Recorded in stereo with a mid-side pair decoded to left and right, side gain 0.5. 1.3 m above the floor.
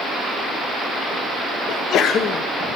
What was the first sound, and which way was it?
A sneeze, 65° left.